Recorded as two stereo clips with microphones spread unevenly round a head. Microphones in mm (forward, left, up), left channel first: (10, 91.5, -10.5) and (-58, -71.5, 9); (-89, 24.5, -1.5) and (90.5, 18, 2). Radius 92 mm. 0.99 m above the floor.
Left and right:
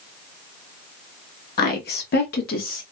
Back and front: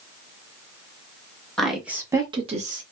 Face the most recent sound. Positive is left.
turn(degrees=30)